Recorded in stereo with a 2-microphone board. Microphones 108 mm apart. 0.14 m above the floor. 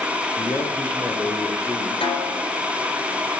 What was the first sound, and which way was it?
A man speaking, 20° left (ahead or behind).